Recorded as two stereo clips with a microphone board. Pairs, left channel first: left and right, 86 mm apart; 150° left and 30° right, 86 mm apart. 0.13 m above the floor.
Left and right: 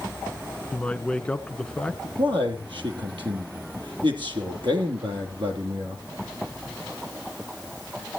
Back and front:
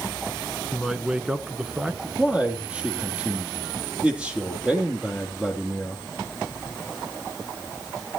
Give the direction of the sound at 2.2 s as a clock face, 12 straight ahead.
4 o'clock.